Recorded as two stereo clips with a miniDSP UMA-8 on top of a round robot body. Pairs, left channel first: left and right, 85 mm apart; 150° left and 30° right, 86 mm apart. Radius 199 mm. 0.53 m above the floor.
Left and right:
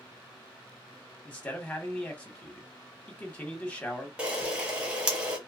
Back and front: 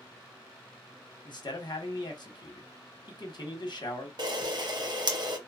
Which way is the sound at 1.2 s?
165° left.